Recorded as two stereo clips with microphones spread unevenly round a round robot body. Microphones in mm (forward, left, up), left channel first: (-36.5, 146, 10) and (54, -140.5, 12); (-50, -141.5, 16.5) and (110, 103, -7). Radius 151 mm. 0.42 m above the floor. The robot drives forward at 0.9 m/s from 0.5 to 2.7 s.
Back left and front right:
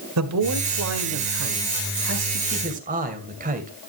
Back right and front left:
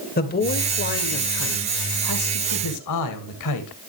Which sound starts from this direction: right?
A man speaking, at 0.2 s.